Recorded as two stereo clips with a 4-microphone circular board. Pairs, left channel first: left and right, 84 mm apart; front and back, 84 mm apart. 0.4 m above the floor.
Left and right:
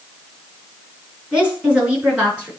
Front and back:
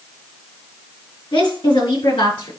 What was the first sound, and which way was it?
A woman speaking, 10° right.